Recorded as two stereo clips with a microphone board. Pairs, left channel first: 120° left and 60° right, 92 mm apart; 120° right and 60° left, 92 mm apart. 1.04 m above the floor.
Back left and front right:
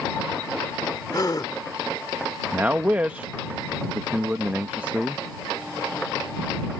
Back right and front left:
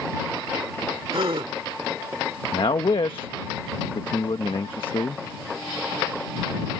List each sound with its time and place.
1.1 s a gasp: 75° left
2.5 s a man speaking: 130° right